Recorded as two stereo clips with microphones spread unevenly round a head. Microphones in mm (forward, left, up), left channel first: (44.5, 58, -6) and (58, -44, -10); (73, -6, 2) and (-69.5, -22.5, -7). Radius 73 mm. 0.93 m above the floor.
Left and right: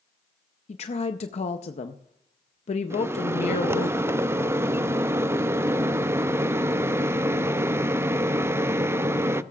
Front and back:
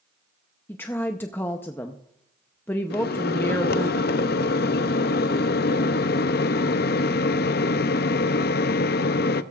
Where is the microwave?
15° right, 0.6 m.